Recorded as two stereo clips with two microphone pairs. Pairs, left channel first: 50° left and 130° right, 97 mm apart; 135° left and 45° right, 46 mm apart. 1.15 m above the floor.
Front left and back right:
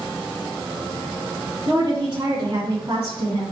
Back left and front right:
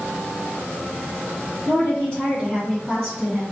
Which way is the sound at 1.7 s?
170° right.